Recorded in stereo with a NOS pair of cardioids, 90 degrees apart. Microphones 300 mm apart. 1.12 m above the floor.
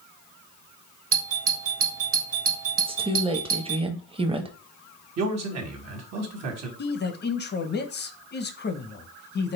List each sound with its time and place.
1.1 s a doorbell: 45° right, 1.8 m
2.8 s a woman speaking: 20° right, 1.1 m
5.2 s a man speaking: 60° right, 1.8 m
6.8 s a man speaking: 35° left, 1.0 m